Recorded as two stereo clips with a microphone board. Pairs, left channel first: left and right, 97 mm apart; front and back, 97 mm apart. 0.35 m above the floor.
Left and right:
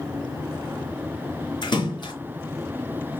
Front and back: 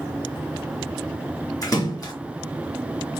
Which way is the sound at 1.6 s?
50° left.